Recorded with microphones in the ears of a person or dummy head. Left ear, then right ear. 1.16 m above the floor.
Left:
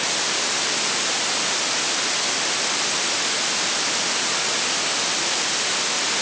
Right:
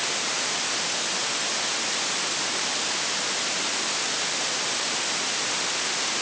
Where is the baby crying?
No baby crying in this recording.